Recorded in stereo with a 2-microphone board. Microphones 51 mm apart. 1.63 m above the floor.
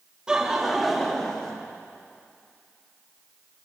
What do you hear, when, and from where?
0.3 s laughter: 20° right (ahead or behind), 2.5 m; by 1.5 s 15° left (ahead or behind), 2.5 m